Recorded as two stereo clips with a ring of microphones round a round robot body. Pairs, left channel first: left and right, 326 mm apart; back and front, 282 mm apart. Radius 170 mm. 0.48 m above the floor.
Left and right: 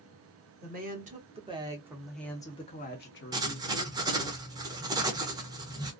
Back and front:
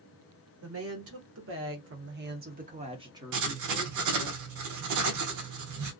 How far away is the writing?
About 0.7 m.